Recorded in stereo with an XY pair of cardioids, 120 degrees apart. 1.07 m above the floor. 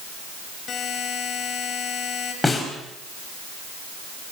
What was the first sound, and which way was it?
A buzzer, 45° left.